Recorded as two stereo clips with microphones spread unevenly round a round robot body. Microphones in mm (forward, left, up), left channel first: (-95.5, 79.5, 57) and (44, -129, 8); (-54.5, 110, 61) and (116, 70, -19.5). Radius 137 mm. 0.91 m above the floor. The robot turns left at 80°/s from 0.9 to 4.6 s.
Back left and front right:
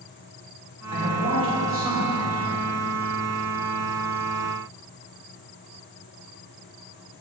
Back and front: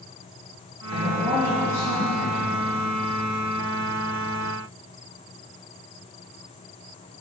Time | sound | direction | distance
0.9 | a man speaking | 45° right | 2.5 m